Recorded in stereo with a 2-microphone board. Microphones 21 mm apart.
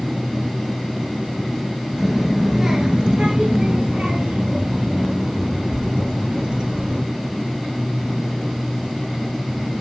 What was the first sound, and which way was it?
A child speaking, 5° right (ahead or behind).